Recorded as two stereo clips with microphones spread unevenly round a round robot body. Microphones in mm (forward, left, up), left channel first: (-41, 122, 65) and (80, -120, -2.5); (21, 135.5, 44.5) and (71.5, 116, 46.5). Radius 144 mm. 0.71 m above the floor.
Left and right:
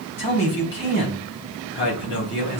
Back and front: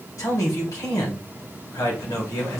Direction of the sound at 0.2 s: 170° left.